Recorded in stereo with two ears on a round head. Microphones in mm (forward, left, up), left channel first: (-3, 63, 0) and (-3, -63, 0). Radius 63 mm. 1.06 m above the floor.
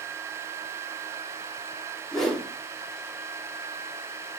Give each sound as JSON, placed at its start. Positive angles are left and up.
{"t": 2.1, "sound": "a whoosh", "side_deg": 5, "distance_m": 3.0}